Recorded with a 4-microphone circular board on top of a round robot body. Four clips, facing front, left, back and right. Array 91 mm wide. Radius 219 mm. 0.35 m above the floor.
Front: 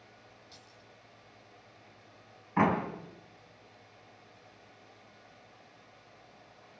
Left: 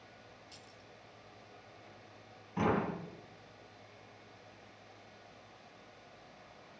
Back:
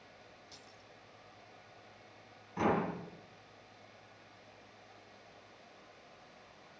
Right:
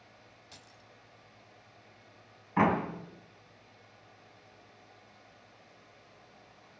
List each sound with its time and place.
0.5 s keys jangling: 95° right, 3 m
2.6 s a door slam: 45° right, 3 m